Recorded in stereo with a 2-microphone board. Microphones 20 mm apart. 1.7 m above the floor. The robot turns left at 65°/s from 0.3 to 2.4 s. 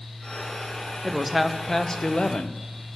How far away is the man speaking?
About 0.7 m.